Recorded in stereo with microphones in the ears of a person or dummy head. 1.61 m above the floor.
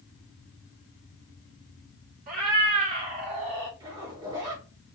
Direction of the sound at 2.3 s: 40° right (ahead or behind).